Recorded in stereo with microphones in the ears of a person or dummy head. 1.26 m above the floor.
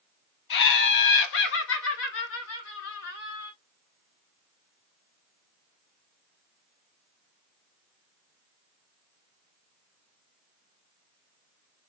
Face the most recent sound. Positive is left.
turn(degrees=85)